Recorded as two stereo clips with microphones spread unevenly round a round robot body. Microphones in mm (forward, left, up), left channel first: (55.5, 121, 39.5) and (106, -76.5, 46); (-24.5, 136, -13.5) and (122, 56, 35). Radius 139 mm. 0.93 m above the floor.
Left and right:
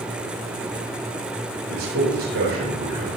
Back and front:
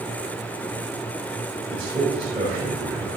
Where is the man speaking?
105° right, 4 m.